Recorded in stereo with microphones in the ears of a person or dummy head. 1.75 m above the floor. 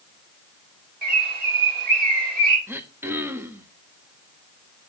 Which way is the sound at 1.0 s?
50° right (ahead or behind).